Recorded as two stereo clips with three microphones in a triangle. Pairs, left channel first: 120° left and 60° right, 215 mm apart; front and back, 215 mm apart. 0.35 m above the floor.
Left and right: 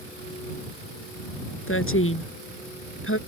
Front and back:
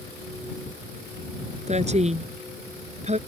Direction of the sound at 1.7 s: 120° left.